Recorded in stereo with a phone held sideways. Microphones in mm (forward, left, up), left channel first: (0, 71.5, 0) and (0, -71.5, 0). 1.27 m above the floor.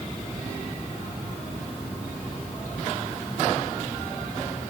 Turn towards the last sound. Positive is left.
No sound to turn to.